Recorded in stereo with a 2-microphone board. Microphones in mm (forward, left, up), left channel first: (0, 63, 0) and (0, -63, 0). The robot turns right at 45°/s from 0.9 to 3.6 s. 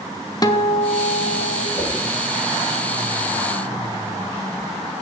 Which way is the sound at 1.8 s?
65° left (ahead or behind).